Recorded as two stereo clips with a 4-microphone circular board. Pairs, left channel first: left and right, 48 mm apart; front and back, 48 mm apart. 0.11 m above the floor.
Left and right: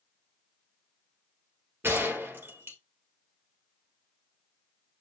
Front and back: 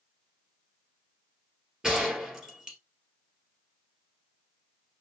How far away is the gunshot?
About 2.5 m.